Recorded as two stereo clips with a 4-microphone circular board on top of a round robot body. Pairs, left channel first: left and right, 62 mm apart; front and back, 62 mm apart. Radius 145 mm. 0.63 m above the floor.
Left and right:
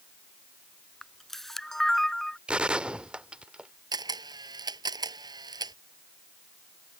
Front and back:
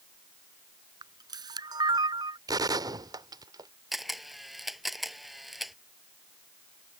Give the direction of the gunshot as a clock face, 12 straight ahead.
5 o'clock.